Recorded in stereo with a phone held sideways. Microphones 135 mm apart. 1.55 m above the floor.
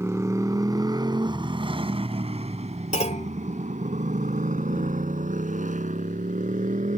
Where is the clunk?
65° left (ahead or behind).